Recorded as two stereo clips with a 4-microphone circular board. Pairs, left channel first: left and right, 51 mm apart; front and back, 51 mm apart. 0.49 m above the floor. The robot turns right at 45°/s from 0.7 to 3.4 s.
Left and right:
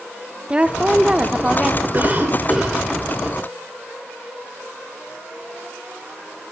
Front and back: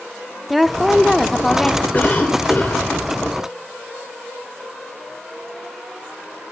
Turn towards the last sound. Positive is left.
turn(degrees=20)